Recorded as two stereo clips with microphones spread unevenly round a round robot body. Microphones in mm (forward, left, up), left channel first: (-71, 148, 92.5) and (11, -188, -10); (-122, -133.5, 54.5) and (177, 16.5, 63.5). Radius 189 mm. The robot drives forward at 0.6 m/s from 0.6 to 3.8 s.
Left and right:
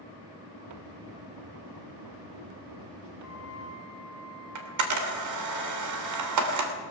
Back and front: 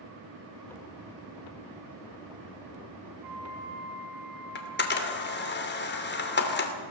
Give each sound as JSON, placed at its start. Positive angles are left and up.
{"t": 3.2, "sound": "a flute", "azimuth_deg": 5, "distance_m": 4.5}
{"t": 4.5, "sound": "a camera shutter", "azimuth_deg": -95, "distance_m": 2.5}